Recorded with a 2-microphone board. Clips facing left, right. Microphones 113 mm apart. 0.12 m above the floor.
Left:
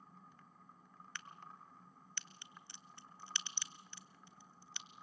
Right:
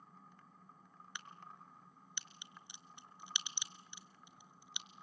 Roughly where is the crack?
Centre.